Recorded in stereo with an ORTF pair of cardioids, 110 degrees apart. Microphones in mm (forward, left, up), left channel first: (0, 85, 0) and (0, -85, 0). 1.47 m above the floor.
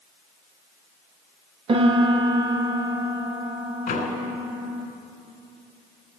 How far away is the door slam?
About 4 m.